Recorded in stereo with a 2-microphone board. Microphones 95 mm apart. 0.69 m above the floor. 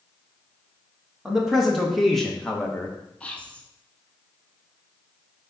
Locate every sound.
1.2 s a man speaking: 5° right (ahead or behind), 1.3 m; by 3.0 s 10° left (ahead or behind), 1.1 m
3.2 s whispering: 15° left (ahead or behind), 0.9 m